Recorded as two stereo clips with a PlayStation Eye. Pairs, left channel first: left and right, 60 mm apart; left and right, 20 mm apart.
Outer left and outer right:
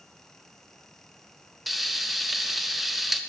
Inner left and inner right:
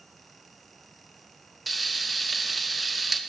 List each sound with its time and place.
1.7 s frying: 5° right (ahead or behind), 0.5 m